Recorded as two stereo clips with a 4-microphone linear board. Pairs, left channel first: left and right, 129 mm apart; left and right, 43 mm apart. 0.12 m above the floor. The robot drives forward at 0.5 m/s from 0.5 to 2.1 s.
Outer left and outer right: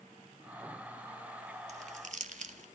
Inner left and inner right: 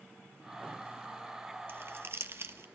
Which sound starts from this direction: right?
Crumpling, at 1.7 s.